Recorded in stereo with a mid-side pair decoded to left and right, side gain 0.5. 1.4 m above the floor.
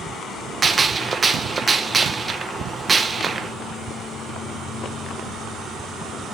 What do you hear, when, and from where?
0.6 s a gunshot: 30° right, 0.8 m